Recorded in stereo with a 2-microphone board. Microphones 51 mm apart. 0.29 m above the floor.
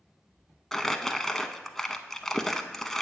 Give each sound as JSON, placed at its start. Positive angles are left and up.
{"t": 0.7, "sound": "crumpling", "side_deg": 5, "distance_m": 0.5}